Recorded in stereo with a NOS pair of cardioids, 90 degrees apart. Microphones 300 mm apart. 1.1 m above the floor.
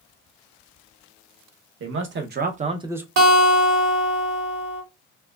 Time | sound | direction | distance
1.8 | a man speaking | 45° right | 1.0 m
3.2 | a guitar | 70° right | 1.4 m